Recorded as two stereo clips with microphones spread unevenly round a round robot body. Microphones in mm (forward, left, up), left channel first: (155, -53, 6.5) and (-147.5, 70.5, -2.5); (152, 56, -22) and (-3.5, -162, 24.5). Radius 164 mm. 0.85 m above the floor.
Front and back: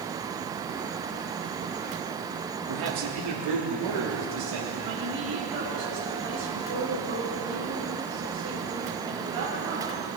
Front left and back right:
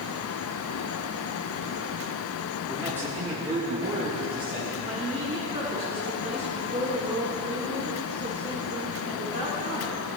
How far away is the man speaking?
About 1.8 m.